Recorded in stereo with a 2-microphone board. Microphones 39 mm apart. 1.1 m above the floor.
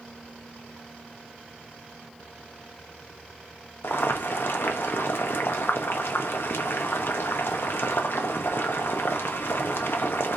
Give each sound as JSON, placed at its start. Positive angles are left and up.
{"t": 3.8, "sound": "boiling", "side_deg": 90, "distance_m": 0.7}